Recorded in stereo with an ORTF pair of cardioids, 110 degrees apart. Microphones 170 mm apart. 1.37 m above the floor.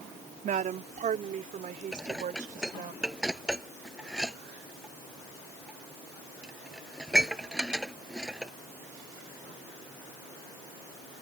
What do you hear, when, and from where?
0.4 s a woman speaking: 50° right
1.9 s dishes clattering: 5° right